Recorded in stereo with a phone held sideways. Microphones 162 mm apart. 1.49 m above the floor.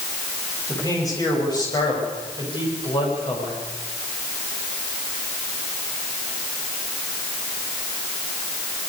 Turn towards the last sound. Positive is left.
turn(degrees=35)  # may be behind; listen again after turning